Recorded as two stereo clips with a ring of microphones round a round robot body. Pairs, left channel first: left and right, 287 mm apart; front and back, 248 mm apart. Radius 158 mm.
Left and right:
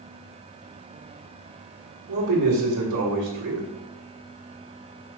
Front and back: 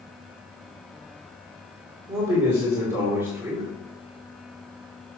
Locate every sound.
2.1 s a man speaking: 105° right, 2.5 m